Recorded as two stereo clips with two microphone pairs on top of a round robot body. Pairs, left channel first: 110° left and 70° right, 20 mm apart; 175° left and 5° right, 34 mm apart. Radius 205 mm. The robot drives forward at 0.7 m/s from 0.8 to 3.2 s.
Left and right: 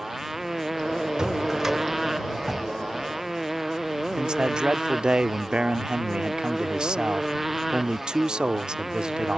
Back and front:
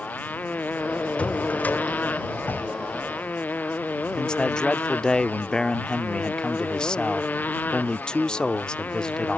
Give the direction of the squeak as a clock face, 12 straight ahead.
No squeak in this recording.